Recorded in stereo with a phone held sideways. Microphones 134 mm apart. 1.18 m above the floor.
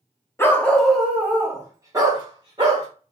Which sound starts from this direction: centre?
A dog barking, at 0.4 s.